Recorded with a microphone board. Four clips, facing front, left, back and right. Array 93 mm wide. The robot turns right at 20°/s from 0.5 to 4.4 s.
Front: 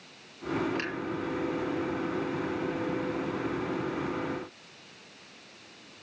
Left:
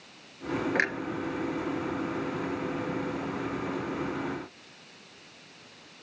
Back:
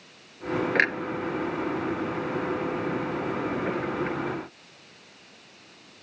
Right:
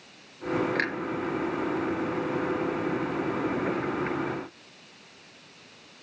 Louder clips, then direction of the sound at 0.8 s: Even, back 7 dB; 165° left.